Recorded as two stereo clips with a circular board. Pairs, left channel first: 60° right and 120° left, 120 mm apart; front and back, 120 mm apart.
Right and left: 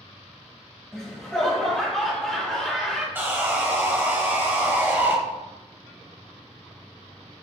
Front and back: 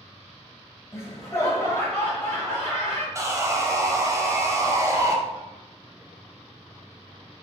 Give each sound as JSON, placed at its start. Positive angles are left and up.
{"t": 0.9, "sound": "laughter", "azimuth_deg": 20, "distance_m": 1.1}
{"t": 3.1, "sound": "sawing", "azimuth_deg": 170, "distance_m": 0.7}